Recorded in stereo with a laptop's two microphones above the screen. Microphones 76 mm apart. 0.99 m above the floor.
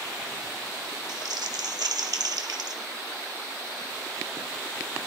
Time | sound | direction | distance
1.1 | crumpling | 65° right (ahead or behind) | 1.1 m